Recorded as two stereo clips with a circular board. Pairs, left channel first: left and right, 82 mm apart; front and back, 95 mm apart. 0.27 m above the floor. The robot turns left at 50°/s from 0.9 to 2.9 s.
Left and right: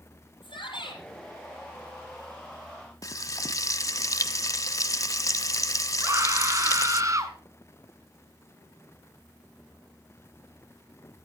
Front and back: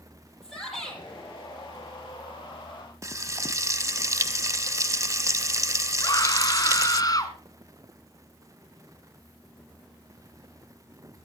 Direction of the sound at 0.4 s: 90° left.